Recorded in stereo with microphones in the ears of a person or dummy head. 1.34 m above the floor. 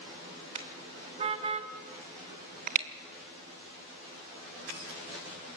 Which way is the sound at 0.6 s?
30° right (ahead or behind).